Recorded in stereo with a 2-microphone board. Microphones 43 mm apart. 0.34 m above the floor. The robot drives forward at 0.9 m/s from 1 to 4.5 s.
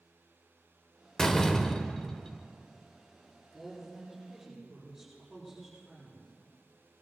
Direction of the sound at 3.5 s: Centre (ahead or behind).